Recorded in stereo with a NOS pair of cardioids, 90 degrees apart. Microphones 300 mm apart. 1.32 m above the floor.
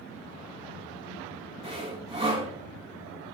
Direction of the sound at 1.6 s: 20° right.